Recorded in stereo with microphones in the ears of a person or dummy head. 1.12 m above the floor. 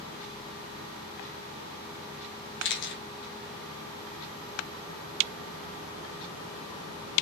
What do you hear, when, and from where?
2.6 s a camera shutter: 55° left (ahead or behind), 1.1 m